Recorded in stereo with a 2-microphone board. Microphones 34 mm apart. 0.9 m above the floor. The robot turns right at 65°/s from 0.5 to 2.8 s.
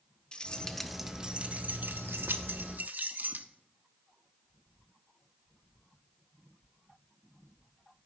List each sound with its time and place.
0.3 s keys jangling: 25° left (ahead or behind), 0.8 m; by 3.5 s 55° right (ahead or behind), 0.8 m